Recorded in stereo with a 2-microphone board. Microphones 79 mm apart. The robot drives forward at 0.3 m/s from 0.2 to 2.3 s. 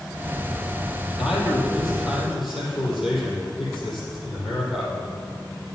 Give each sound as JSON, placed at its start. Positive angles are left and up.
{"t": 1.2, "sound": "a man speaking", "side_deg": 0, "distance_m": 5.0}